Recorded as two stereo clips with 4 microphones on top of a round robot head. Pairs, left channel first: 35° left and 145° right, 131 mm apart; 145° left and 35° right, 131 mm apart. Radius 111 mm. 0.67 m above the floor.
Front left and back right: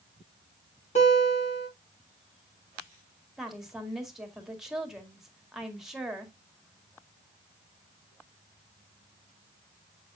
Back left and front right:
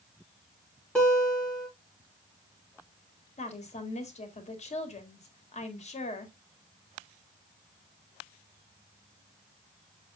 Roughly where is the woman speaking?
Behind left.